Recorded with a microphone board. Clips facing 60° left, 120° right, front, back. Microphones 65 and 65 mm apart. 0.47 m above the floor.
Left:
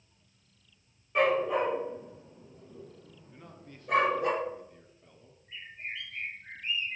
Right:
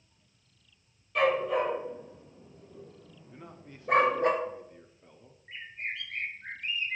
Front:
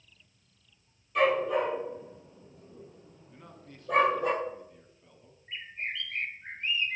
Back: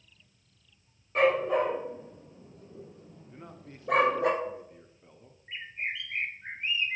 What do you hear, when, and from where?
1.1 s a dog barking: 125° left, 4 m; by 4.3 s 165° right, 2.5 m
3.3 s a man speaking: 165° right, 0.7 m
5.5 s a bird: 110° right, 0.9 m